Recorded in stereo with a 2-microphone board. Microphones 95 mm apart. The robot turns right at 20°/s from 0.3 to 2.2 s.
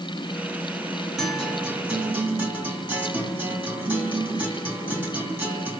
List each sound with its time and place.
1.2 s a guitar: 5° right (ahead or behind), 3.5 m; by 5.8 s 20° right (ahead or behind), 3.5 m